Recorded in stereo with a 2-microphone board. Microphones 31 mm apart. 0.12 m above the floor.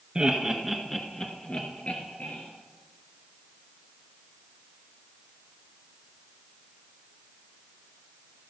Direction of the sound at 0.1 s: 25° right (ahead or behind).